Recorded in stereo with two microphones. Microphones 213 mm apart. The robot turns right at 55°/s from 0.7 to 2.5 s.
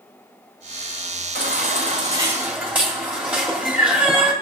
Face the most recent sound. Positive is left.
turn(degrees=-10)